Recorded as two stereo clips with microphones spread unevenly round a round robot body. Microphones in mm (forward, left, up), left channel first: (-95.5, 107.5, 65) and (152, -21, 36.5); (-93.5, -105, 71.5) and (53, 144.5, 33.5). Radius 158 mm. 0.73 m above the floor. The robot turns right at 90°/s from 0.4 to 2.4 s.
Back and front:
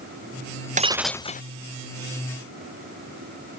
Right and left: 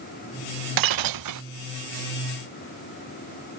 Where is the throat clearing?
No throat clearing in this recording.